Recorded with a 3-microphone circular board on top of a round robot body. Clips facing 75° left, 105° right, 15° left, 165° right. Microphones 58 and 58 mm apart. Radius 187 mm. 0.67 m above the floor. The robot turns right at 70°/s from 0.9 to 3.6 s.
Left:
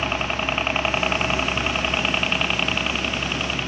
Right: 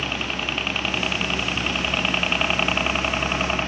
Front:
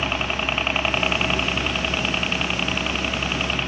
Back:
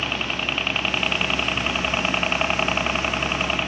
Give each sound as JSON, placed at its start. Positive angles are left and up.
{"t": 0.0, "sound": "a helicopter", "azimuth_deg": 75}